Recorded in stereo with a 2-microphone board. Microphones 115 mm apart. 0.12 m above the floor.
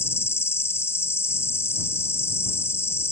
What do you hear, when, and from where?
0.0 s an insect: 20° left (ahead or behind)